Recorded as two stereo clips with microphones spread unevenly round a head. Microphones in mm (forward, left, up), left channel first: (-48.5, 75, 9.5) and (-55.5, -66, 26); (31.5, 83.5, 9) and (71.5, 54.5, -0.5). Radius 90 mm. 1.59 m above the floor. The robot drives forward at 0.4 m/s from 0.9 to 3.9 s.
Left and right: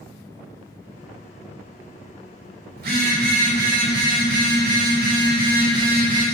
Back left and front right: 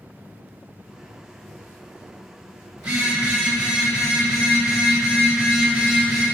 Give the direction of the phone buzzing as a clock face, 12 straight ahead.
3 o'clock.